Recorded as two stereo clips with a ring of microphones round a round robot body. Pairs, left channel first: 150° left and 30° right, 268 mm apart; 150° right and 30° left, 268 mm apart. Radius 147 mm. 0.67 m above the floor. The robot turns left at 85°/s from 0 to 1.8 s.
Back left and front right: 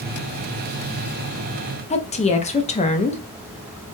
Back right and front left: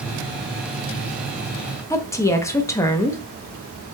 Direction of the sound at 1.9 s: 145° left.